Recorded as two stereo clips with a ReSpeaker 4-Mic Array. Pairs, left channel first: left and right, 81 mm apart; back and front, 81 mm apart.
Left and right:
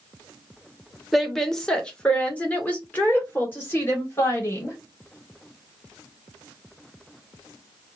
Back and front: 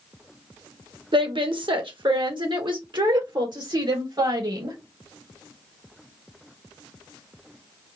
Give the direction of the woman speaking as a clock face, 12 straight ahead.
12 o'clock.